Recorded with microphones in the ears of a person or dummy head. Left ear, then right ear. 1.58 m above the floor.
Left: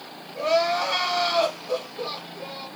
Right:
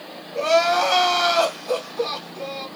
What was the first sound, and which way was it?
Crying, 65° right (ahead or behind).